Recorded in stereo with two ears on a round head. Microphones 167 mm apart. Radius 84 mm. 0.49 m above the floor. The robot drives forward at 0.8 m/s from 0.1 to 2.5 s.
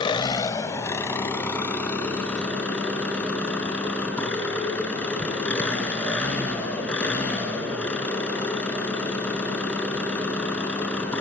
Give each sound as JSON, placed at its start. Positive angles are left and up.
{"t": 0.0, "sound": "an engine running", "side_deg": 25, "distance_m": 0.8}